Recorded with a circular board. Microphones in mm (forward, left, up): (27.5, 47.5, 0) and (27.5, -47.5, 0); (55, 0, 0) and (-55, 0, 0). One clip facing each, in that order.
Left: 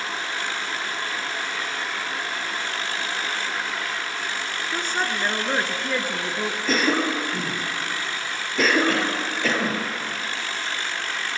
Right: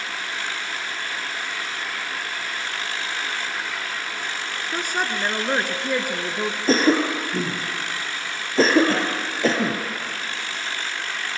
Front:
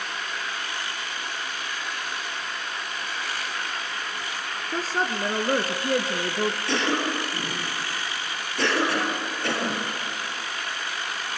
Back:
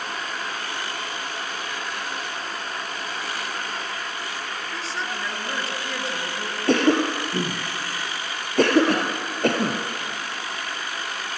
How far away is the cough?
About 2.5 m.